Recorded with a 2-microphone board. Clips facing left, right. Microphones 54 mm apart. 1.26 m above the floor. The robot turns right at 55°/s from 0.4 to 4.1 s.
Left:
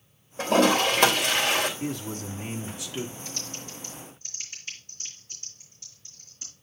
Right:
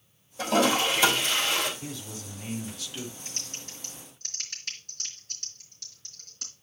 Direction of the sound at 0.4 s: 50° left.